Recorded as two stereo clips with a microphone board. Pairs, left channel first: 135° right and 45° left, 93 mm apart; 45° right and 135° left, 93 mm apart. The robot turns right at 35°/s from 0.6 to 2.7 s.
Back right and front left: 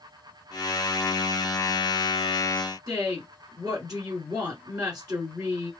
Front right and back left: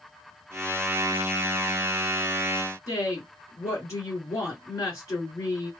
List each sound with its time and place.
2.9 s a woman speaking: straight ahead, 2.5 m